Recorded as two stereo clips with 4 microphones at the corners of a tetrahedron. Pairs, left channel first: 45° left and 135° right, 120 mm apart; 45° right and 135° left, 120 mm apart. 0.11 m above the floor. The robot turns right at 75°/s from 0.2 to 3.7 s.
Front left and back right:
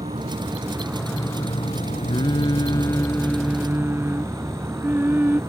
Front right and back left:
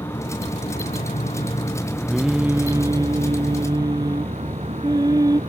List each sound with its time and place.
0.0 s an insect: 105° right; by 5.5 s 160° left
2.1 s singing: 40° left; by 5.4 s 160° left